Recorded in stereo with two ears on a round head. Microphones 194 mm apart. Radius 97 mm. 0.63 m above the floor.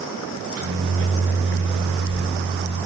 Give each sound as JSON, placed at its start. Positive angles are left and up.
{"t": 0.3, "sound": "a microwave", "side_deg": -75, "distance_m": 4.0}